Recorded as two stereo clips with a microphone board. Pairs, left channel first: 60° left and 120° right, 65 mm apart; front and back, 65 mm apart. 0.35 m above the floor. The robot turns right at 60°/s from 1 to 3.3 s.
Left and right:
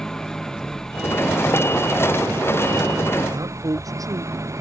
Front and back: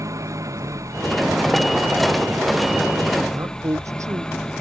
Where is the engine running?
140° left; by 4.6 s 80° right.